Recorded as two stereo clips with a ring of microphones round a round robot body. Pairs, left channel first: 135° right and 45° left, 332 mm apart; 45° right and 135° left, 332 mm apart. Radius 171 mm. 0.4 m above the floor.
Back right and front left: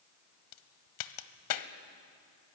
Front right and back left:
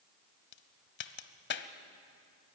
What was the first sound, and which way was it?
A crack, 105° right.